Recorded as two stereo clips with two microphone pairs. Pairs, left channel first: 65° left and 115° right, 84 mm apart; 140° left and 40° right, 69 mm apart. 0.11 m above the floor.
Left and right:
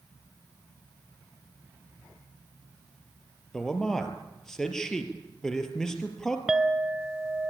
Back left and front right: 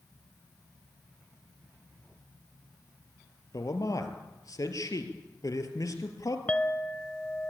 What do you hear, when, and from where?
3.5 s a man speaking: 150° left, 3 m
6.5 s a clink: 175° left, 0.9 m